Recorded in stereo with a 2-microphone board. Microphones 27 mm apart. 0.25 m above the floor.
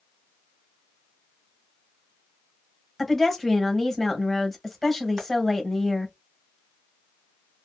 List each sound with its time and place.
3.0 s a woman speaking: 10° left (ahead or behind), 1.0 m
5.2 s tapping: 30° right (ahead or behind), 1.7 m